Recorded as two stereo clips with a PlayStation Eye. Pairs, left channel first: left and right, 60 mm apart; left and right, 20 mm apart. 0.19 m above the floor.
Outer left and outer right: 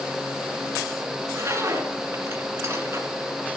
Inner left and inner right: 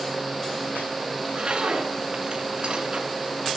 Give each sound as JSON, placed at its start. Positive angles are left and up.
{"t": 1.2, "sound": "a zipper", "side_deg": -40, "distance_m": 2.5}